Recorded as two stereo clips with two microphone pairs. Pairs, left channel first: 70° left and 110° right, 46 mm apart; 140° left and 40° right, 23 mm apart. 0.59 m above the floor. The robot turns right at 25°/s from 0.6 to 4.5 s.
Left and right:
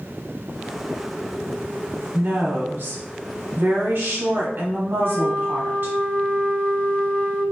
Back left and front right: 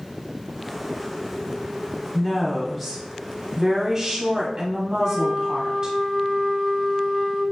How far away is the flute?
About 1.4 m.